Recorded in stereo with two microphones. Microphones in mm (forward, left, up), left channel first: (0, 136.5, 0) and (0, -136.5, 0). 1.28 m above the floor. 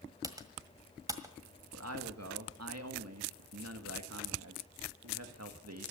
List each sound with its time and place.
0.2 s typing on a keyboard: 10° right (ahead or behind), 1.6 m
1.7 s a man speaking: 70° right (ahead or behind), 1.9 m